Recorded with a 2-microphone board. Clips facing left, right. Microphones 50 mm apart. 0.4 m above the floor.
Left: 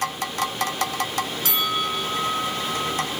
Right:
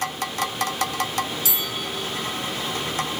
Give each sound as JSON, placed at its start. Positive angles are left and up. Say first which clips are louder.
{"t": 1.4, "sound": "a bell", "louder": "left 5 dB", "side_deg": 50}